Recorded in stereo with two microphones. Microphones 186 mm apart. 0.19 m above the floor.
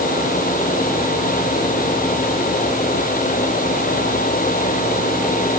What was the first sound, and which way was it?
Only background noise.